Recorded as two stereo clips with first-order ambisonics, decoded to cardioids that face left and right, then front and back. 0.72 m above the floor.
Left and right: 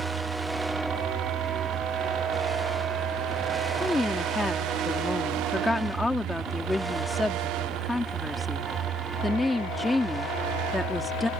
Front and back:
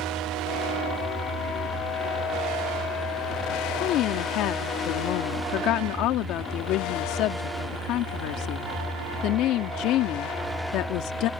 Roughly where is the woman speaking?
Ahead.